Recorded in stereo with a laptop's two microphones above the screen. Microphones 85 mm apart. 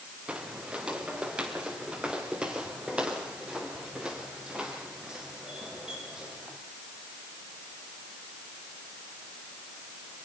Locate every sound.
0.3 s footsteps: 15° right (ahead or behind), 3.5 m; by 6.6 s 10° right (ahead or behind), 7 m